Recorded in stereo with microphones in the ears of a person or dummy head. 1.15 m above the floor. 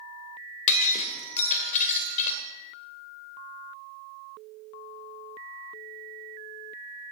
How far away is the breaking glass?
About 1.7 m.